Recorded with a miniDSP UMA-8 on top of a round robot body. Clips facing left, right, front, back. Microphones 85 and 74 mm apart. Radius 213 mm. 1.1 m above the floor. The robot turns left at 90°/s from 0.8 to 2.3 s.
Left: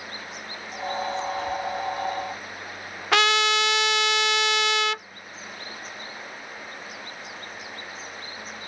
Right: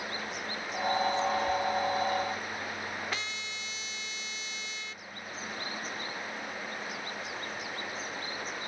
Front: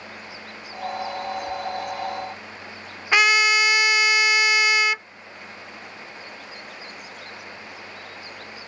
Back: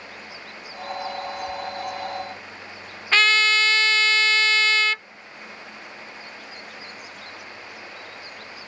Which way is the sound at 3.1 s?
75° left.